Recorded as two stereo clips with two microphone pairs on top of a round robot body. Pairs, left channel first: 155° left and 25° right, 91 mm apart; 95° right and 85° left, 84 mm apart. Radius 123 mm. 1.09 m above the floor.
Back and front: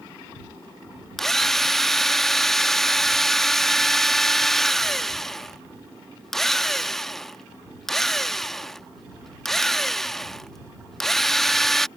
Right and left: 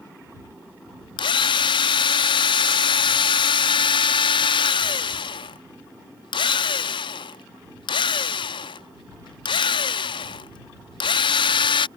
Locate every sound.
1.2 s a drill: 115° right